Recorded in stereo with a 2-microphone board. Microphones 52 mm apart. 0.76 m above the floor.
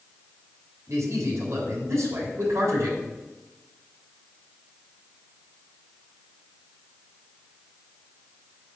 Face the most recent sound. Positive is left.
turn(degrees=-75)  # may be behind; listen again after turning